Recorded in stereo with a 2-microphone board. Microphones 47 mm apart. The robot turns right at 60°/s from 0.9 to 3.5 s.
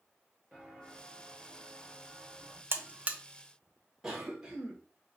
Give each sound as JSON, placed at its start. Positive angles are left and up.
{"t": 0.5, "sound": "footsteps", "side_deg": -10, "distance_m": 1.6}
{"t": 2.7, "sound": "a buzzer", "side_deg": -55, "distance_m": 0.6}
{"t": 4.0, "sound": "a cough", "side_deg": -10, "distance_m": 1.6}